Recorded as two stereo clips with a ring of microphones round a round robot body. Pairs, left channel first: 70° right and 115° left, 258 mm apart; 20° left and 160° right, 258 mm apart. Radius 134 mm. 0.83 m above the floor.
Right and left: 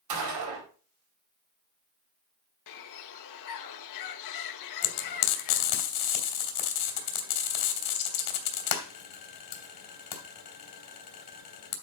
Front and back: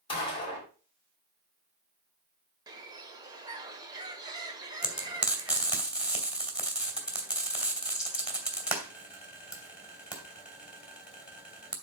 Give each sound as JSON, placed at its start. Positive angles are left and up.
{"t": 0.1, "sound": "a gunshot", "azimuth_deg": 95, "distance_m": 5.0}
{"t": 2.7, "sound": "a bird", "azimuth_deg": -85, "distance_m": 1.1}
{"t": 4.8, "sound": "frying", "azimuth_deg": -70, "distance_m": 2.5}